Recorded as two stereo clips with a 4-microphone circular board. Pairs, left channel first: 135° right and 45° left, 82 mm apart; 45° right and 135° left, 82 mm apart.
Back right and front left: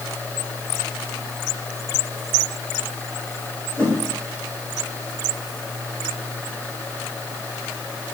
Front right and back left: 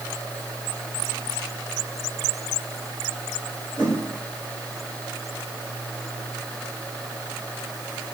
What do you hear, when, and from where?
3.8 s a whoosh: 35° left, 4.5 m